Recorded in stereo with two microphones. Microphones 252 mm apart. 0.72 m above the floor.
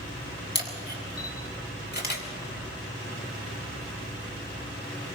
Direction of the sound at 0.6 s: 40° left (ahead or behind).